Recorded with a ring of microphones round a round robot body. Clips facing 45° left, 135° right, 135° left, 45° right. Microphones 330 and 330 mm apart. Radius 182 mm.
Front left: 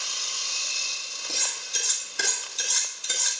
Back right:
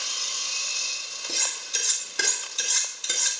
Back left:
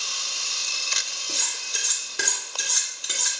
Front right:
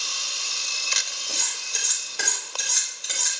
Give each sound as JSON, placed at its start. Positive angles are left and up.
{"t": 1.3, "sound": "cutlery clinking", "azimuth_deg": -150, "distance_m": 2.5}